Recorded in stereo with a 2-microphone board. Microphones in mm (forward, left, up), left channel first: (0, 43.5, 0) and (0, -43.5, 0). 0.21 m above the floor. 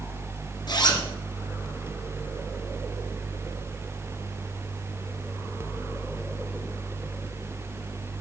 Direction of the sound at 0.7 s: 55° left (ahead or behind).